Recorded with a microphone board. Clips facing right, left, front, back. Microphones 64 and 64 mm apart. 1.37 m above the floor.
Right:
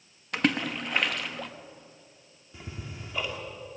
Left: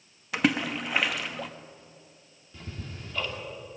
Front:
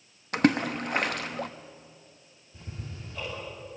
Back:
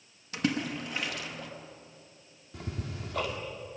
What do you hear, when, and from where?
0.3 s a splash: 5° left, 0.9 m
2.5 s ticking: 165° right, 2.5 m